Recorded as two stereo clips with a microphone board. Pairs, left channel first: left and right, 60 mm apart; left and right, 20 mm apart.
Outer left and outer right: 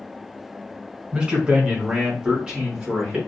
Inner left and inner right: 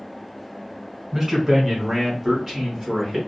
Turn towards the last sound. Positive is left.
turn(degrees=-10)  # may be behind; listen again after turning